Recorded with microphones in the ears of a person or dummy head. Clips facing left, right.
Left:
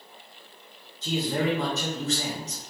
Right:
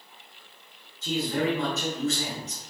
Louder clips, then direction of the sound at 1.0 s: Even; 40° left (ahead or behind).